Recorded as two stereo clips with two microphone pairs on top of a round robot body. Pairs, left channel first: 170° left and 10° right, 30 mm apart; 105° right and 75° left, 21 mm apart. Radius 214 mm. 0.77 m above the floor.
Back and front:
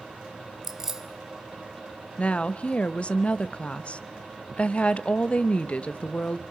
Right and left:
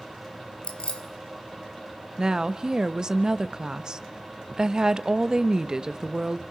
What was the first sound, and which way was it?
Keys jangling, 85° right.